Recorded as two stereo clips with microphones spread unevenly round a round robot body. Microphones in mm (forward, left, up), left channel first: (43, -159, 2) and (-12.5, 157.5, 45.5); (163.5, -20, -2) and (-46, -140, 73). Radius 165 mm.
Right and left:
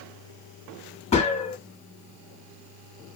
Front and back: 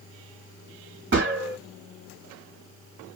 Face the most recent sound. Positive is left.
turn(degrees=-115)